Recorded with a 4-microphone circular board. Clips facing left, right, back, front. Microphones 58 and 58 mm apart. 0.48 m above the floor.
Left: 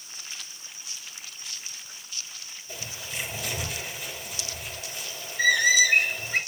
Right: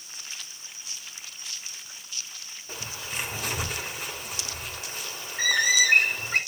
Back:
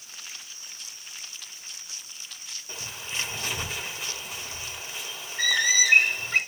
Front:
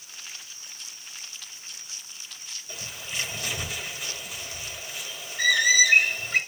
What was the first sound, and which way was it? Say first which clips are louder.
A bird: right 2 dB, even; 125° right.